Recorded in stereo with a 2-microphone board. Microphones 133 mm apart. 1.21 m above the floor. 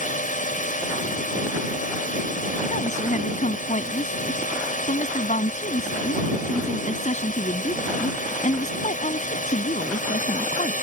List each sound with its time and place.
0.0 s a drone: 75° left (ahead or behind)
2.7 s a woman speaking: 65° left (ahead or behind)